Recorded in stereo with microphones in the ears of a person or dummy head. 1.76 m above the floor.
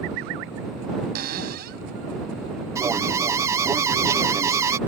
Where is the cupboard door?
60° right (ahead or behind).